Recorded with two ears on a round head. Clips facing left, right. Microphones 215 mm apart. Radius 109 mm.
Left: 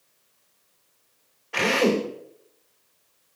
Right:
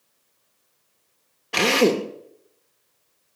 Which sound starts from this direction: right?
A drill, at 1.5 s.